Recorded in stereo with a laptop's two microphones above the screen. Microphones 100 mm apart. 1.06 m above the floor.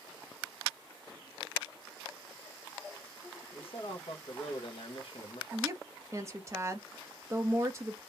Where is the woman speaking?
30° right (ahead or behind), 0.9 m.